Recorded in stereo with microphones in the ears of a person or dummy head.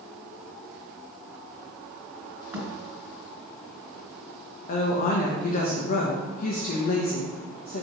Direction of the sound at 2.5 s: 15° right (ahead or behind).